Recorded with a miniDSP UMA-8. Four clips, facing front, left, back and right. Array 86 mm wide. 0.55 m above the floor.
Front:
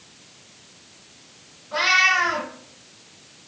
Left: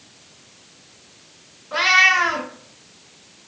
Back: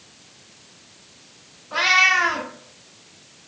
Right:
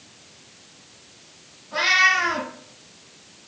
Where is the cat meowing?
115° left, 1.2 m.